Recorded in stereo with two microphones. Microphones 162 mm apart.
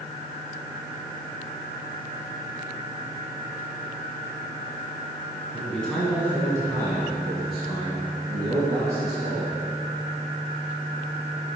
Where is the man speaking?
10° left (ahead or behind), 1.6 m; by 9.6 s 65° right (ahead or behind), 3 m.